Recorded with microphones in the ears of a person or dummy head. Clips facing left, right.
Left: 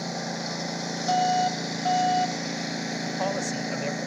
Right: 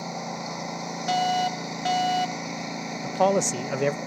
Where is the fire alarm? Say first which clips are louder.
Left 1 dB; 35° right (ahead or behind).